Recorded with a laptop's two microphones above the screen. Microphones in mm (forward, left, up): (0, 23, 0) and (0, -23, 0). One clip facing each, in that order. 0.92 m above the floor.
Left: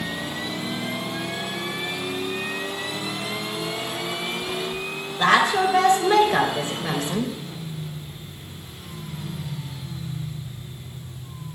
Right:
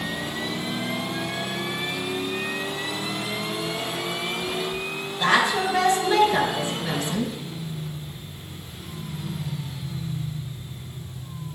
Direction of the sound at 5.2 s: 45° left (ahead or behind).